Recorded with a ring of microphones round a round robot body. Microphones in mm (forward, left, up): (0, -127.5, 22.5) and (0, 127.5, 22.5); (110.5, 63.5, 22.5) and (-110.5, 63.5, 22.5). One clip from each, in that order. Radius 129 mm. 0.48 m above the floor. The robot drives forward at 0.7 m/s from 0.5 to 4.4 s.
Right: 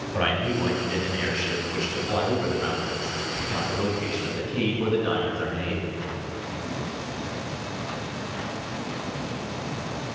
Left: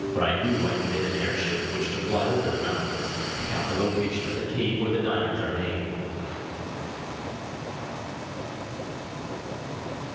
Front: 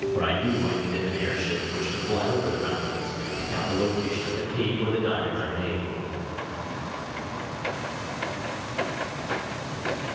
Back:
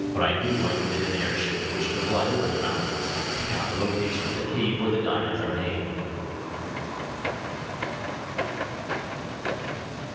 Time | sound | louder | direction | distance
0.1 | a man speaking | right 1 dB, back 4 dB | 130° right | 3.5 m